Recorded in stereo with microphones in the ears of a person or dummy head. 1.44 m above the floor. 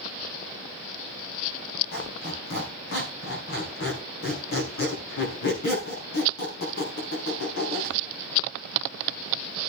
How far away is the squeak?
About 5 m.